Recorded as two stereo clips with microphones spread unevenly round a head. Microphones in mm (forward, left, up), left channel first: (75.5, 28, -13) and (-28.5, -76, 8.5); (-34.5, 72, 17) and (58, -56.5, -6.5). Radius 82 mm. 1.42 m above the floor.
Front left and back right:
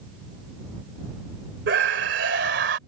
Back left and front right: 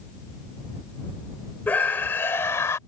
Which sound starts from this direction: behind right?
A scream, at 1.7 s.